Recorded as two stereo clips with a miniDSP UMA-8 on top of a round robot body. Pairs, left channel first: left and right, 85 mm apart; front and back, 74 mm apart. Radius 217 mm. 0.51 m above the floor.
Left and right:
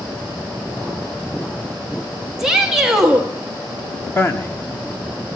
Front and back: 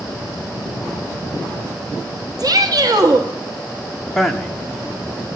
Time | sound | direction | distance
2.4 | a shout | 175° right | 1.1 m
4.2 | a man speaking | 85° left | 1.3 m